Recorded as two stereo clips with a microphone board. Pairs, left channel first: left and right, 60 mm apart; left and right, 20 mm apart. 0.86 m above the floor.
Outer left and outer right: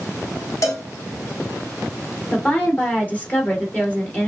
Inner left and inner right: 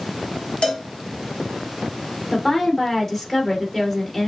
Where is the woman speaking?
25° left (ahead or behind), 2.5 m.